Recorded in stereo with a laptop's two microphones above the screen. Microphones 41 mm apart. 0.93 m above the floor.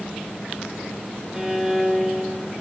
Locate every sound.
1.3 s a violin: 10° right (ahead or behind), 0.9 m